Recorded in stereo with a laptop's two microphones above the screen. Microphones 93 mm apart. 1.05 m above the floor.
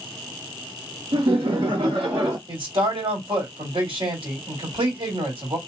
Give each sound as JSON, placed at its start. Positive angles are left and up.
{"t": 1.1, "sound": "laughter", "side_deg": -75, "distance_m": 0.6}
{"t": 2.5, "sound": "a man speaking", "side_deg": -80, "distance_m": 2.5}